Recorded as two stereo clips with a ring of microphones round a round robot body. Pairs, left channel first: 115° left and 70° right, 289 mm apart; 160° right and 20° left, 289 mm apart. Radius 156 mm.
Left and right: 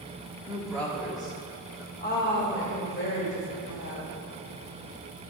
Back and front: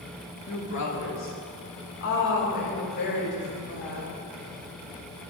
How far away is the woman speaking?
About 1.5 m.